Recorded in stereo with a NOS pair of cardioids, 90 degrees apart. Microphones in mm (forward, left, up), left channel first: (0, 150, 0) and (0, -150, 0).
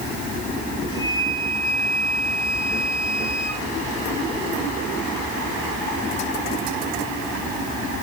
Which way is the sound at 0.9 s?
70° left.